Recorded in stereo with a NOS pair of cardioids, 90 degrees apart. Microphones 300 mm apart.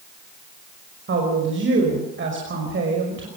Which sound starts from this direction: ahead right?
A woman speaking, at 1.1 s.